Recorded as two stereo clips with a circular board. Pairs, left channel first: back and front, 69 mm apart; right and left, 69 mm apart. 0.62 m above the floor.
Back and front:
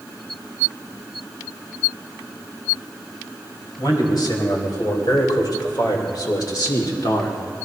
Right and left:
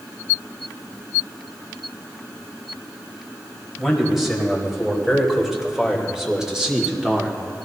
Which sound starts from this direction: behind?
A man speaking, at 3.8 s.